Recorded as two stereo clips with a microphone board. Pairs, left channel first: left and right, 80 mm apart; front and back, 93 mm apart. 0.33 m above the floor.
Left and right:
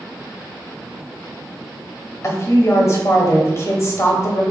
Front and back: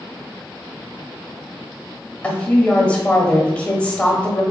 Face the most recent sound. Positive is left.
turn(degrees=70)